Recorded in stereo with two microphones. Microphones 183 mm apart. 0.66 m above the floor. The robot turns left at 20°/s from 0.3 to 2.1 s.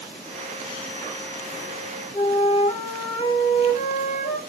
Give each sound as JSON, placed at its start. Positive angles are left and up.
{"t": 2.1, "sound": "a flute", "side_deg": 40, "distance_m": 0.6}